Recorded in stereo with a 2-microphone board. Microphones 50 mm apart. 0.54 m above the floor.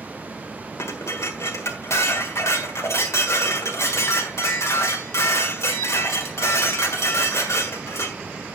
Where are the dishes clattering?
65° left (ahead or behind), 1.4 m.